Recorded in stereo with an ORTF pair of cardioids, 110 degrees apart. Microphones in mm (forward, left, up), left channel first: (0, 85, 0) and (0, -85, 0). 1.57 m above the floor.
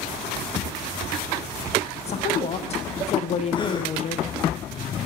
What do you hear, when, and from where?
2.1 s a woman speaking: 40° left, 0.9 m
3.5 s a gasp: 30° left, 0.8 m